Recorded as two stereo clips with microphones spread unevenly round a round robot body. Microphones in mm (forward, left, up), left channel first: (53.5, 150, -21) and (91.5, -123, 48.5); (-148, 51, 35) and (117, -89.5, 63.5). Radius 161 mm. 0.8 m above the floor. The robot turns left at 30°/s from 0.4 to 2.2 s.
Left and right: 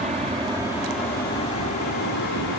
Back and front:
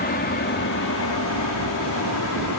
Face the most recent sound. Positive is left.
turn(degrees=120)